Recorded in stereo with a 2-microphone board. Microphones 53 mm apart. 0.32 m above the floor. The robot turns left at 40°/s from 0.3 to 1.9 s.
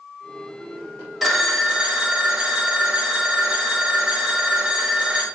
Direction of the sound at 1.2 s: 5° left (ahead or behind).